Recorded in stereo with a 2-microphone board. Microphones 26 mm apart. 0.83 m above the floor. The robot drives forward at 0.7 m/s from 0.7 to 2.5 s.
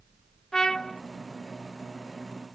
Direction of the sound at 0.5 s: 25° left (ahead or behind).